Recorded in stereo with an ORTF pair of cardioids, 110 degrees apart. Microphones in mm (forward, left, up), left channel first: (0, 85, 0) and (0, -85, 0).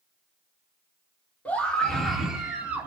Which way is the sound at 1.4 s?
10° left.